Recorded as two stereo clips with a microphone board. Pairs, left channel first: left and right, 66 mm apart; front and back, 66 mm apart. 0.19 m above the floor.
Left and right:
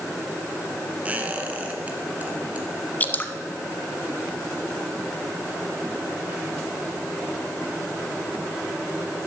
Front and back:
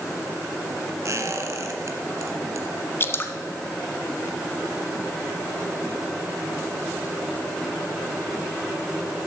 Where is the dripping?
35° left, 0.8 m.